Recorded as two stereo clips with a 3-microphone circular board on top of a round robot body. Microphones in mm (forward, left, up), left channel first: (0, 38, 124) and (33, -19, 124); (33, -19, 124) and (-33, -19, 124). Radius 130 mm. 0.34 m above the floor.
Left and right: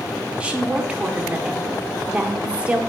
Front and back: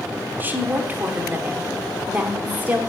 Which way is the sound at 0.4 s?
130° right.